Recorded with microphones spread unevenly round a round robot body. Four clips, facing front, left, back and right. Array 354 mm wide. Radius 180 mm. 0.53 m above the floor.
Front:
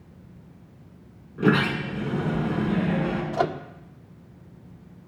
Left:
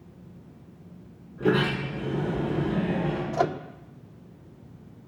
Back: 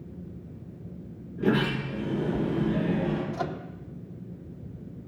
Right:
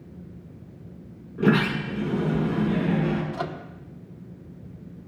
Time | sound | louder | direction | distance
1.4 | a sliding door | right 2 dB, front 3 dB | 45° right | 6 m
3.3 | a microwave | left 6 dB, front 7 dB | 40° left | 0.8 m